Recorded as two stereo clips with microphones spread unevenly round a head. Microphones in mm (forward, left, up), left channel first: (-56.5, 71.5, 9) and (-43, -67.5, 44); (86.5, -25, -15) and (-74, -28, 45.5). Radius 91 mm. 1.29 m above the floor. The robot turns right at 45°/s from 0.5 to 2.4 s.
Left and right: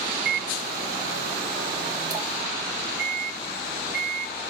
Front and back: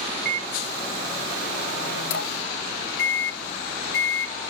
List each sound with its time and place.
0.2 s a microwave: 85° right, 0.7 m; by 4.3 s straight ahead, 0.7 m